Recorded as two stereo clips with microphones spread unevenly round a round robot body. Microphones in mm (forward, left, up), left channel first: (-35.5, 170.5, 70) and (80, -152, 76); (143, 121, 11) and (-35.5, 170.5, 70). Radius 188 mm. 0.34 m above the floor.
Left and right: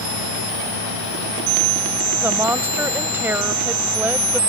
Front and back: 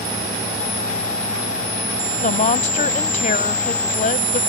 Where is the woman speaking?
15° left.